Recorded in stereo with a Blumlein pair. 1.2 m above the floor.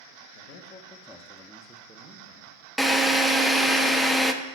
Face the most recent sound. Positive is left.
turn(degrees=0)